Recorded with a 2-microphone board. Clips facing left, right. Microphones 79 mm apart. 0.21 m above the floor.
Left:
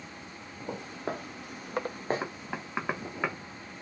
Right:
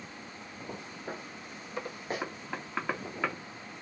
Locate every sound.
0.7 s footsteps: 85° left, 1.1 m; by 2.2 s 30° left (ahead or behind), 0.5 m
2.2 s knocking: 15° left (ahead or behind), 0.8 m